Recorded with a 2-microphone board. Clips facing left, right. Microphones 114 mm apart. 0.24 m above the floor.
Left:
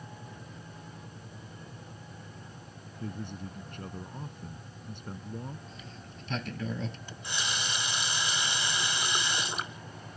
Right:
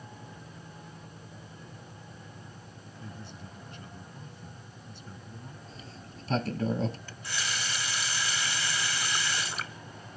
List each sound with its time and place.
3.0 s a man speaking: 55° left (ahead or behind)
5.7 s a sliding door: 35° right (ahead or behind)
7.1 s a running tap: 20° left (ahead or behind)